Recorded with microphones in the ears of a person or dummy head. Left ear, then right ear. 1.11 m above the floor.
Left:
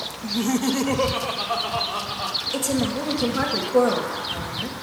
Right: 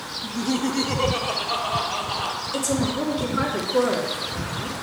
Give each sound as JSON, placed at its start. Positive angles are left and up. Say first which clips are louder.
{"t": 0.2, "sound": "laughter", "louder": "left 2 dB", "side_deg": 85, "distance_m": 0.8}
{"t": 2.5, "sound": "a woman speaking", "louder": "even", "side_deg": 60, "distance_m": 2.0}